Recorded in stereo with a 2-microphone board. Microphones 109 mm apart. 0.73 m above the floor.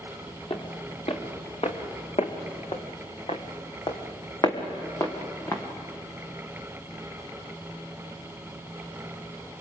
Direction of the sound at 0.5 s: 55° left (ahead or behind).